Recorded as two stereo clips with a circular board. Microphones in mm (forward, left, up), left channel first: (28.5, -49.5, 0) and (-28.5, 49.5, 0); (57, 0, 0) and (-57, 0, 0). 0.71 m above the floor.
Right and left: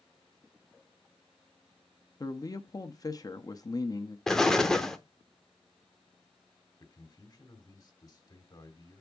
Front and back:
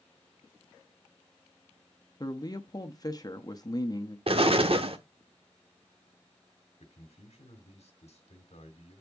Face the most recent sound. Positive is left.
turn(degrees=-10)